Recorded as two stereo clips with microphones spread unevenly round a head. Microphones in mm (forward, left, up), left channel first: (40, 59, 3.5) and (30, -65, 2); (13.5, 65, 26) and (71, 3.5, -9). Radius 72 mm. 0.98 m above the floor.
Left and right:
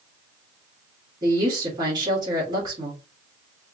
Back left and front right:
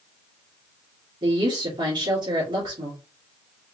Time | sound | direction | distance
1.2 | a woman speaking | 40° right | 1.8 m